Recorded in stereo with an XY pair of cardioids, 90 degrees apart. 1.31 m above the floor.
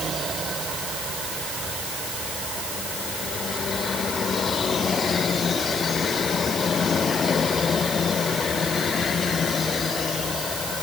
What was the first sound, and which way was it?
Only background noise.